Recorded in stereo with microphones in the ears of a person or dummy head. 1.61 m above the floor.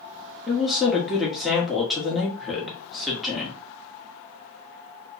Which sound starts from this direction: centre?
A woman speaking, at 0.5 s.